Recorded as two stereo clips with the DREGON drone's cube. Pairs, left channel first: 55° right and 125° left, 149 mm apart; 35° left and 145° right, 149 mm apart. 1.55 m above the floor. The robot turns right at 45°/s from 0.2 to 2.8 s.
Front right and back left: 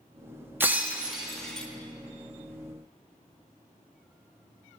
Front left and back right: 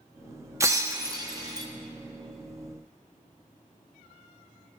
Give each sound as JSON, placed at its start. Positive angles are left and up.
{"t": 0.6, "sound": "breaking glass", "azimuth_deg": 180, "distance_m": 1.0}